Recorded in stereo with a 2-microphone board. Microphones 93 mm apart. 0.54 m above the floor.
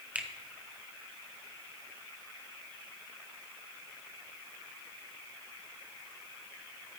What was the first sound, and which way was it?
A finger snap, 15° right (ahead or behind).